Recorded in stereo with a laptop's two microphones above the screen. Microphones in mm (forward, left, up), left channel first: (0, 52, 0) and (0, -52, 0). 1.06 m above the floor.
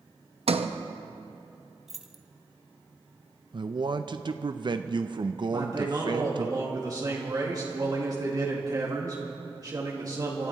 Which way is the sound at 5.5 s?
35° right (ahead or behind).